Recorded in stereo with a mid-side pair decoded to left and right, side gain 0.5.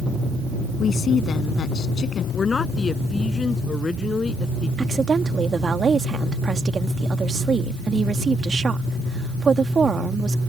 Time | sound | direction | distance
0.8 | a woman speaking | 45° left | ?
2.3 | a man speaking | 30° left | ?
4.8 | a woman speaking | 35° right | ?